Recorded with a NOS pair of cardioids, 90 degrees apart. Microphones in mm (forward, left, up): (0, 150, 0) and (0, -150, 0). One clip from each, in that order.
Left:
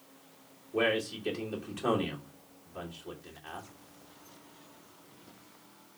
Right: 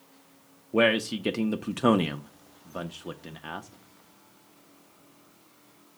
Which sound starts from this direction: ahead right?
A man speaking, at 0.7 s.